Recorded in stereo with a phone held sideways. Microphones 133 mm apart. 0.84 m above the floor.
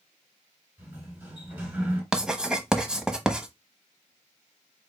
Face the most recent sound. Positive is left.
turn(degrees=-5)  # may be behind; listen again after turning